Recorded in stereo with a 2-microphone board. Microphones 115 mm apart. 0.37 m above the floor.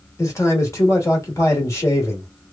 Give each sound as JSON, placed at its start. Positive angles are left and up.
{"t": 0.2, "sound": "a man speaking", "side_deg": 25, "distance_m": 1.3}